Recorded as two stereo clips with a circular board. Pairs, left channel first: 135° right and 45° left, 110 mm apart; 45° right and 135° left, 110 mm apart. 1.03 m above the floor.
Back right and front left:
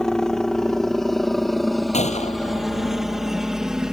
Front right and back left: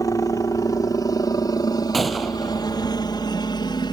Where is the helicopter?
55° right; by 3.9 s 35° right.